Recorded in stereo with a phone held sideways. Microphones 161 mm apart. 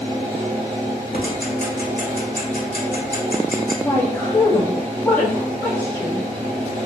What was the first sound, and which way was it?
A fan, 45° right (ahead or behind).